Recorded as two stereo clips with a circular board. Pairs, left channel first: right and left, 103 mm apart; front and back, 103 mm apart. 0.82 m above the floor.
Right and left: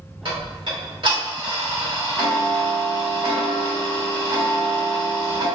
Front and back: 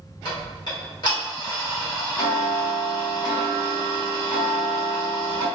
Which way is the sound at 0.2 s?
50° left.